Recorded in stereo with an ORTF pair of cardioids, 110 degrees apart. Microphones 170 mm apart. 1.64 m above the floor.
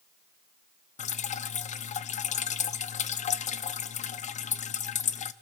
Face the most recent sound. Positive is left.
turn(degrees=45)